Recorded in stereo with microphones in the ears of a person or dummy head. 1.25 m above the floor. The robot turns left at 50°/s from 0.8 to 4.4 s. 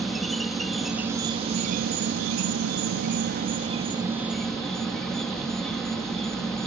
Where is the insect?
Straight ahead; by 6.7 s straight behind.